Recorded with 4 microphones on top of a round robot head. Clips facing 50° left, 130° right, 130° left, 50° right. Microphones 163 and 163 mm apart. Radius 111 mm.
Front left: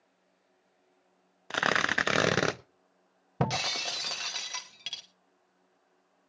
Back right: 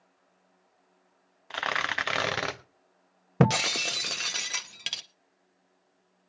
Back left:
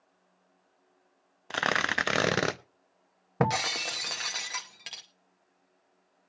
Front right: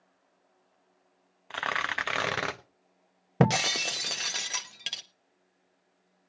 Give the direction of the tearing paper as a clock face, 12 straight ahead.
9 o'clock.